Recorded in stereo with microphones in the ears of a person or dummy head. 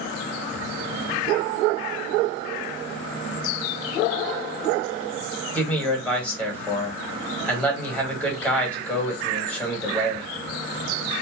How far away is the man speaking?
About 1.4 m.